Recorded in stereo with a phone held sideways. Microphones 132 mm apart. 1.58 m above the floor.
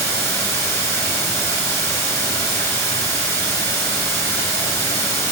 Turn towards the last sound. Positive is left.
turn(degrees=20)  # may be behind; listen again after turning